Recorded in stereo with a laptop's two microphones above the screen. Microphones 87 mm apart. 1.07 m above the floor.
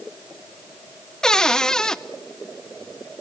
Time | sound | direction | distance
1.2 | a cupboard door | 5° left (ahead or behind) | 0.6 m